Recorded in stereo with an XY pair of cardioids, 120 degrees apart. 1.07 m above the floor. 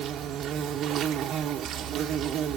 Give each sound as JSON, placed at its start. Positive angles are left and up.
{"t": 0.0, "sound": "an insect", "azimuth_deg": -65, "distance_m": 0.9}